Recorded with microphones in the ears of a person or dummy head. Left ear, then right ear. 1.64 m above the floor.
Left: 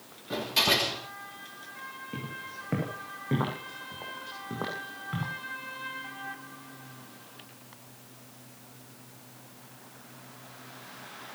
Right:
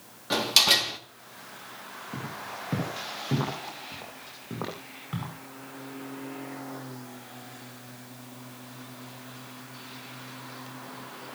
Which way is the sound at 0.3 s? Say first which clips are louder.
Right 4 dB; 50° right (ahead or behind).